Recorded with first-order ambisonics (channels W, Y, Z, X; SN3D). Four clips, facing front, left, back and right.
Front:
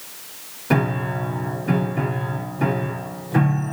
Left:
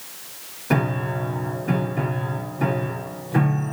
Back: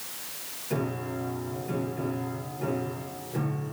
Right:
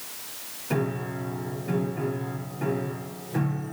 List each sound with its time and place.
0.7 s a piano: 35° left, 1.2 m